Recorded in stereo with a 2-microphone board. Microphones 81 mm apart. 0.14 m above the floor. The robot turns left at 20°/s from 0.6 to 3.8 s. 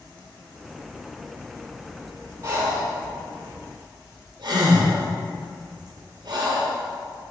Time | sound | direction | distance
2.4 | breathing | 35° right (ahead or behind) | 2.0 m